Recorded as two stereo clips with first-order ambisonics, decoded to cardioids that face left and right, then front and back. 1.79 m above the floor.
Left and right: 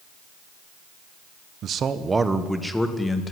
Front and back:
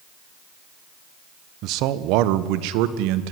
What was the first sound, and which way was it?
A man speaking, 145° right.